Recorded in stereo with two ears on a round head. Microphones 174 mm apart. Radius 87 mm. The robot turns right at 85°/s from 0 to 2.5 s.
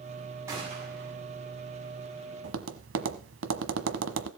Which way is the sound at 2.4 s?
70° right (ahead or behind).